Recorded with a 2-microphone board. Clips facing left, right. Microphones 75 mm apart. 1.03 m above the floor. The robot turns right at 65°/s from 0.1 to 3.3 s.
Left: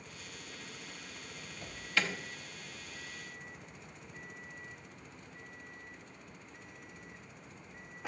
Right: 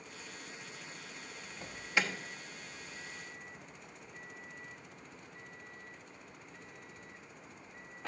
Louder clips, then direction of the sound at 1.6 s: Right 1 dB; 20° right (ahead or behind).